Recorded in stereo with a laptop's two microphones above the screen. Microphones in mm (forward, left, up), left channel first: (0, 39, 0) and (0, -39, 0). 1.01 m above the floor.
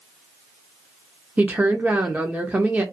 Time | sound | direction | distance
1.4 | a woman speaking | 20° right (ahead or behind) | 0.6 m